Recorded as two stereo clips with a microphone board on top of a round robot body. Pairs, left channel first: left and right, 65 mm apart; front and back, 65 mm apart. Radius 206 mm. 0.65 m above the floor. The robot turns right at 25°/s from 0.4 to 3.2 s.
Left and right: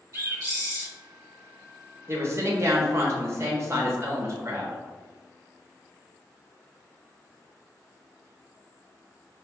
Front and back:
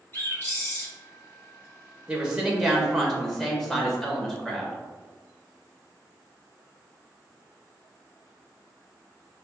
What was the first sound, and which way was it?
A bird, 55° right.